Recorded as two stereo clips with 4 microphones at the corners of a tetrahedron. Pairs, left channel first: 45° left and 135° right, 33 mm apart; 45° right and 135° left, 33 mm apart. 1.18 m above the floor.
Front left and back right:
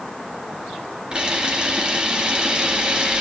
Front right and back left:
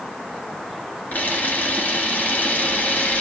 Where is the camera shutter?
70° right, 3.5 m.